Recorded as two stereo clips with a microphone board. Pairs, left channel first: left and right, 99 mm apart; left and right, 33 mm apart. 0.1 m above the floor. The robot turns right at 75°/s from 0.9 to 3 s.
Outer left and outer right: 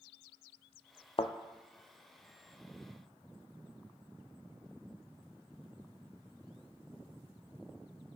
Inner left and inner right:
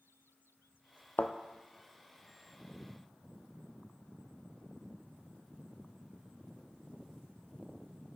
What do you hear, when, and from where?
1.2 s a thud: 65° left (ahead or behind), 0.6 m; by 1.3 s 75° left (ahead or behind), 0.6 m